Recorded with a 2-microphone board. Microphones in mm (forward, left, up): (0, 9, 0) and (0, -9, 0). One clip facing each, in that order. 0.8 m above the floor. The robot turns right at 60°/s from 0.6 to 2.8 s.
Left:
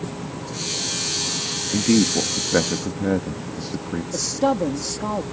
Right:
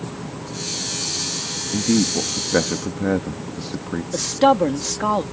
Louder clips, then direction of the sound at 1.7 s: Left 1 dB; 35° left (ahead or behind).